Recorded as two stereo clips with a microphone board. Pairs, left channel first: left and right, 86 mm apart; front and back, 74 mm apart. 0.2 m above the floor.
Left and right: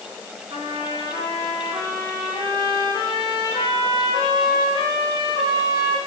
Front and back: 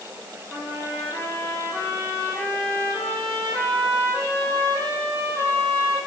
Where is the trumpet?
60° right, 7 m.